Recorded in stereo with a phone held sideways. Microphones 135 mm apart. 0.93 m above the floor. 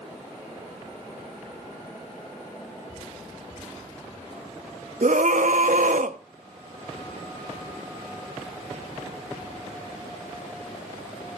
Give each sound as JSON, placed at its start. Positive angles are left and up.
{"t": 5.0, "sound": "a scream", "side_deg": -70, "distance_m": 0.9}